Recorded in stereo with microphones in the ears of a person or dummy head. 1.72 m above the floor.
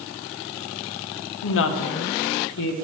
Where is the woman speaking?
65° left (ahead or behind), 1.1 m; by 2.9 s 75° left (ahead or behind), 1.8 m.